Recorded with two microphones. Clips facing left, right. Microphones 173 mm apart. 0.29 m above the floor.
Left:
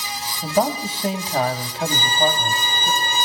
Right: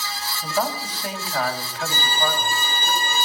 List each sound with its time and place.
0.4 s a man speaking: 25° left (ahead or behind), 1.9 m
1.9 s a violin: 5° right (ahead or behind), 7.5 m